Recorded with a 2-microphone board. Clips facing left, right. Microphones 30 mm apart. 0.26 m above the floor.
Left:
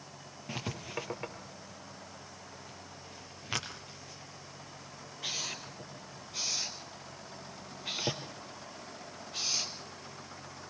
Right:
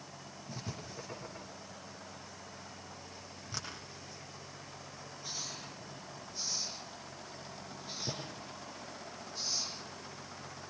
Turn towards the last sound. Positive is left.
turn(degrees=80)